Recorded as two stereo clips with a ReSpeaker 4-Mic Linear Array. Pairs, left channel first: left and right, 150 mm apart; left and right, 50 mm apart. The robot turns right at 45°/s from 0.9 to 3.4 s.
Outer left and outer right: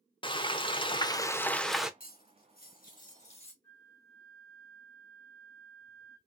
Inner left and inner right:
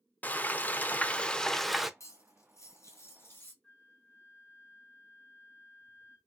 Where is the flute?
15° left (ahead or behind), 2.0 m.